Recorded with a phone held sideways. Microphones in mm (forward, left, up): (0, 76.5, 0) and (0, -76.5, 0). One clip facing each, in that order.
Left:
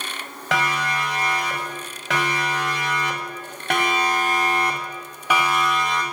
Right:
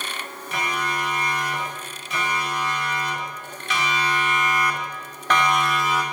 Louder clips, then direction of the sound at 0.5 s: Left 3 dB; 85° left.